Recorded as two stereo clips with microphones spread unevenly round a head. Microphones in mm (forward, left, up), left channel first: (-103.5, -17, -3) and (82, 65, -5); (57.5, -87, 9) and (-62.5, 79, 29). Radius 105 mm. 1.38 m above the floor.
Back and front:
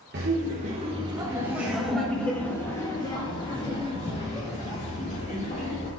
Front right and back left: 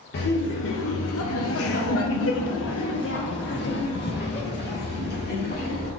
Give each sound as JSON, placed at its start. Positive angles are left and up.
{"t": 0.1, "sound": "laughter", "azimuth_deg": -20, "distance_m": 1.0}